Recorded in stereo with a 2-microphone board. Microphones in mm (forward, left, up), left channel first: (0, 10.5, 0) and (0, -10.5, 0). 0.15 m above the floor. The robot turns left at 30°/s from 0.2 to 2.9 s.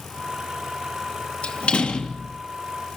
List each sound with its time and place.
1.4 s a door slam: 70° left (ahead or behind), 2.5 m; by 2.4 s 65° left (ahead or behind), 2.5 m